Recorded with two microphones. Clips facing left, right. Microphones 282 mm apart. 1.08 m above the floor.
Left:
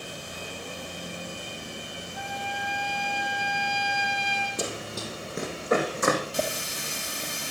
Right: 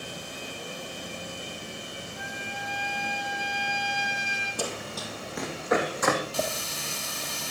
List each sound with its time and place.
2.1 s a trumpet: 85° left, 6 m
4.6 s running footsteps: 25° left (ahead or behind), 2.5 m; by 6.2 s 35° left (ahead or behind), 4.5 m
6.3 s a running tap: 20° left (ahead or behind), 1.4 m